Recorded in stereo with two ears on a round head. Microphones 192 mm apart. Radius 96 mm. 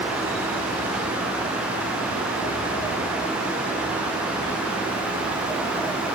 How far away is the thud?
No thud in this recording.